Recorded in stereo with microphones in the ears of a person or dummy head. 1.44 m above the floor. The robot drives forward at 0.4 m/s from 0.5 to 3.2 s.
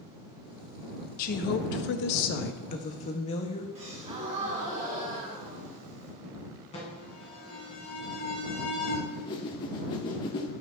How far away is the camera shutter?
No camera shutter in this recording.